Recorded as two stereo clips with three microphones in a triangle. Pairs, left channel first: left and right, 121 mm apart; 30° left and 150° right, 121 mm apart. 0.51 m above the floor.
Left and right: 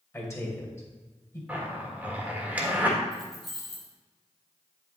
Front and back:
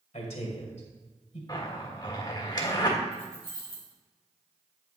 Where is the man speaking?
25° left, 1.9 m.